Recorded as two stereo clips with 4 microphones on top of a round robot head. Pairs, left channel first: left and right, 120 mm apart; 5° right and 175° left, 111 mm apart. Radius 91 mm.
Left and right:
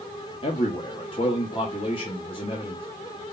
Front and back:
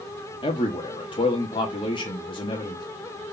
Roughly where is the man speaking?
Ahead left.